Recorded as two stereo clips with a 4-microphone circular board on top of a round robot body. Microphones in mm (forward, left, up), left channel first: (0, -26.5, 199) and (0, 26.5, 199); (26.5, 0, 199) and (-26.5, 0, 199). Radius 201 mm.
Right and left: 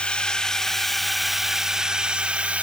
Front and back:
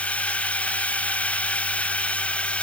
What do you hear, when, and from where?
0.0 s a drone: 35° right; by 2.6 s 45° left